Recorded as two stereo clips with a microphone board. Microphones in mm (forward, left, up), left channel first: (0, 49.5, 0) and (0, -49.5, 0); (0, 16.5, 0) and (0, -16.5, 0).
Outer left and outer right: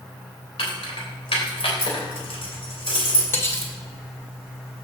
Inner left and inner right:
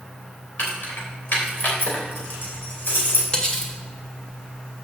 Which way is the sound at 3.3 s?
25° left (ahead or behind).